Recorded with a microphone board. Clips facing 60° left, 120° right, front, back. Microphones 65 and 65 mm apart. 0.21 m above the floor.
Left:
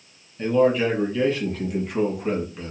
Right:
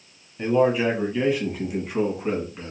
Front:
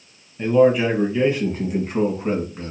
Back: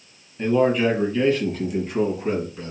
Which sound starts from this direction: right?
A man speaking, at 0.4 s.